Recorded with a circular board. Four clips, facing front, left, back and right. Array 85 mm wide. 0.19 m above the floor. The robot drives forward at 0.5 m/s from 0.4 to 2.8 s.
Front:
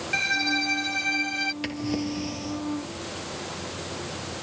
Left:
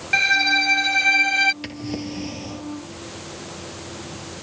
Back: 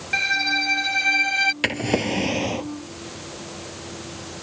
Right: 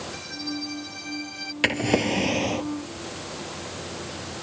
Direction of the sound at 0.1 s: 100° left.